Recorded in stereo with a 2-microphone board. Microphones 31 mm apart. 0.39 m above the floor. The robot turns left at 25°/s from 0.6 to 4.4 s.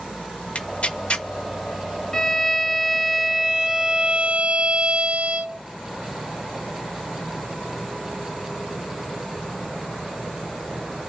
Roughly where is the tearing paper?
Left.